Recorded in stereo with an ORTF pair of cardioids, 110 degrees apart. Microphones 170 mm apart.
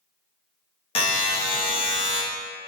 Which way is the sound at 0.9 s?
30° left.